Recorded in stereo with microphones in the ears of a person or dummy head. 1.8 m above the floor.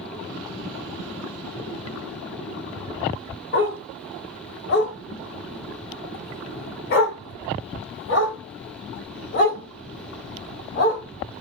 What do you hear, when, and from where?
3.5 s a dog barking: 40° left (ahead or behind), 1.7 m; by 11.0 s 60° left (ahead or behind), 4.5 m